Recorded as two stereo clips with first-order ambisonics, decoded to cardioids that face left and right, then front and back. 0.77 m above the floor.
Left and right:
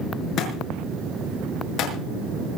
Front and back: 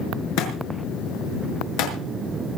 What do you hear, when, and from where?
0.4 s a thud: 30° left, 6 m